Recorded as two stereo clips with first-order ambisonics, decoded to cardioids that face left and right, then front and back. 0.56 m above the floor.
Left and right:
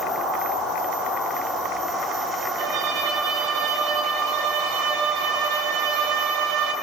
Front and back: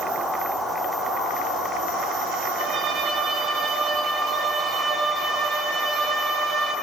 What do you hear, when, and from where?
2.6 s a violin: 115° right, 4.5 m